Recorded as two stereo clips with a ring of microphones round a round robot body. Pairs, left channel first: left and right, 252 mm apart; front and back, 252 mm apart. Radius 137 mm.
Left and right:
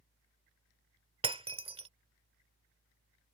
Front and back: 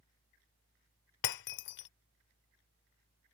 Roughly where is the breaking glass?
Ahead.